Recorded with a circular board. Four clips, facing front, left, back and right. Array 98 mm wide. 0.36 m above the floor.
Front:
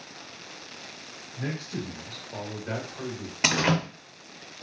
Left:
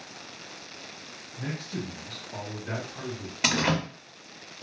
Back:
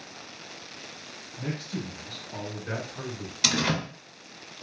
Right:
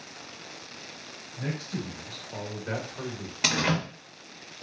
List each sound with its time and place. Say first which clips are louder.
1.4 s a man speaking: right 1 dB, front 1 dB; 20° right, 1.7 m; by 3.3 s 120° right, 1.2 m
3.4 s a door slam: left 1 dB, front 3 dB; 5° left, 0.6 m